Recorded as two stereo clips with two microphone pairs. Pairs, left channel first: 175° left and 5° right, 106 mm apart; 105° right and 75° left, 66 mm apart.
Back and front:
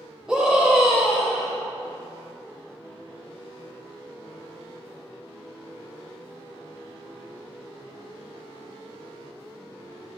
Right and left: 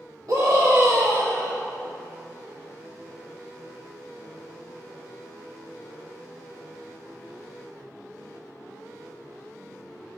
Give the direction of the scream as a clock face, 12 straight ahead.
9 o'clock.